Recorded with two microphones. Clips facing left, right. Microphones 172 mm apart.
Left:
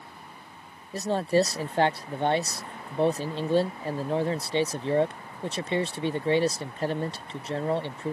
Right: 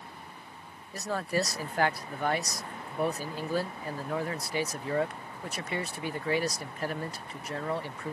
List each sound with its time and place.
0.9 s a man speaking: 30° left (ahead or behind)